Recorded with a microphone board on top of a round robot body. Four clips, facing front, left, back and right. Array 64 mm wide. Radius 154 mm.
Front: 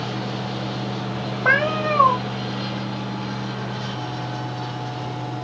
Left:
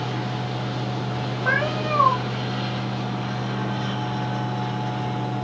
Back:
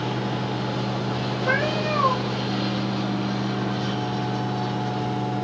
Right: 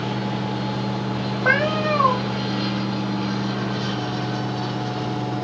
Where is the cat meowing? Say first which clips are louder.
Right 4 dB, front 5 dB; 25° right, 0.9 m.